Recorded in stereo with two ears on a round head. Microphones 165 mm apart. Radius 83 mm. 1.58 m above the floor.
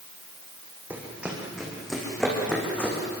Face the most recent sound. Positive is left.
turn(degrees=10)  # may be behind; listen again after turning